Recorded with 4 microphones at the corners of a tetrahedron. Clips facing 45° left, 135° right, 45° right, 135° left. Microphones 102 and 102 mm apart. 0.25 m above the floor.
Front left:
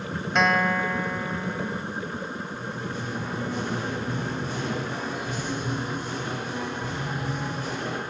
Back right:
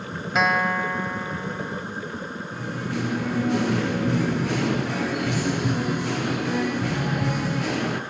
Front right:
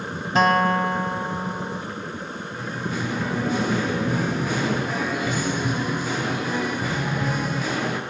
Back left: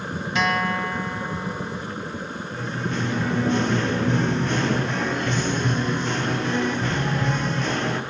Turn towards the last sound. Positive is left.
turn(degrees=-130)